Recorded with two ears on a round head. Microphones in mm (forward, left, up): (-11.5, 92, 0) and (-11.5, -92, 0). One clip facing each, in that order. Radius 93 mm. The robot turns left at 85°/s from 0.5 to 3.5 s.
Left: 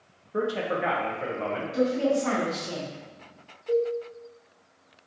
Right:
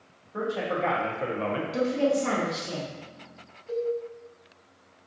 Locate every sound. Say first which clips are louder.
0.3 s a man speaking: left 2 dB; 40° left, 0.5 m; by 1.6 s 55° right, 0.5 m
1.7 s a woman speaking: left 1 dB; 100° right, 0.8 m; by 3.0 s 155° left, 0.8 m
3.7 s a cowbell: left 4 dB; 70° left (ahead or behind), 1.0 m